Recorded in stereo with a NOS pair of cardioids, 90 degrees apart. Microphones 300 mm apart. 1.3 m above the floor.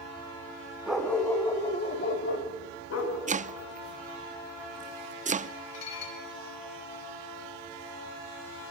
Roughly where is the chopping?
Ahead right.